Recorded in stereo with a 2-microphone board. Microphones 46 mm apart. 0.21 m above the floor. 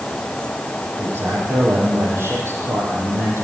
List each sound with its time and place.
1.0 s a man speaking: 65° right (ahead or behind), 7.5 m; by 3.4 s 70° right (ahead or behind), 6.5 m